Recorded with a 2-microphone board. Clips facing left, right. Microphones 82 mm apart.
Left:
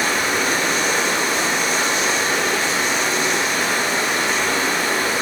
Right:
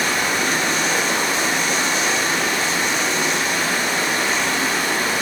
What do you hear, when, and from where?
0.0 s running water: 55° left (ahead or behind), 1.7 m